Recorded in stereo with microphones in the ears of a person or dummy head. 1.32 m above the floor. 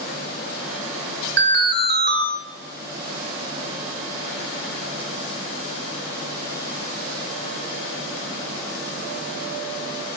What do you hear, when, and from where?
1.4 s an alarm: 55° right (ahead or behind), 3 m